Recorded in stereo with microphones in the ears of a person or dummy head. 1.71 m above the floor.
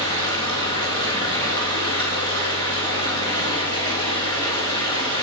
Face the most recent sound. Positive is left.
turn(degrees=20)  # may be behind; listen again after turning